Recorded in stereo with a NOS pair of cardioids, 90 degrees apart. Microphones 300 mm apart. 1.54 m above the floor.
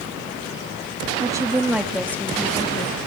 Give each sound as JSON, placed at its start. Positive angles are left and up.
{"t": 1.2, "sound": "a woman speaking", "azimuth_deg": -15, "distance_m": 2.0}